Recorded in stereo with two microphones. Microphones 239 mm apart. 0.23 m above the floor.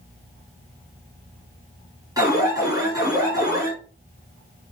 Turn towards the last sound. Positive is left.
turn(degrees=-15)  # may be behind; listen again after turning